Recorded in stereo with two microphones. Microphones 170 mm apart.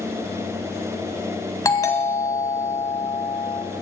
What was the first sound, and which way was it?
A doorbell, 20° left (ahead or behind).